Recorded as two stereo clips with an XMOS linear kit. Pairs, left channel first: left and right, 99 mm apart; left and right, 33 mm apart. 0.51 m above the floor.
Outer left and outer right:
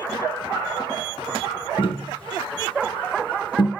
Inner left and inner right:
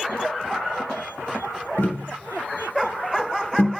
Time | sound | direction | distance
1.8 | tapping | 60° left (ahead or behind) | 1.6 m